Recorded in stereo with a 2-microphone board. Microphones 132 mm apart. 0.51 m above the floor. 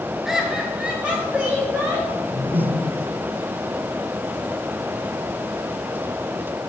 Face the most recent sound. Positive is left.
turn(degrees=-65)  # may be behind; listen again after turning